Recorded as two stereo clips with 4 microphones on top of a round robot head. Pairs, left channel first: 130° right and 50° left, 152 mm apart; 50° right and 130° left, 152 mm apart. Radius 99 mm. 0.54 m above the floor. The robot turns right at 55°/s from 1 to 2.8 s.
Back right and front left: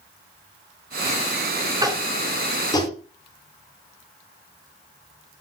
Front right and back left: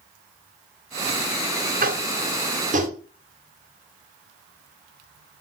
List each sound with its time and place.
1.8 s tapping: 110° left, 3 m; by 3.0 s 165° left, 3 m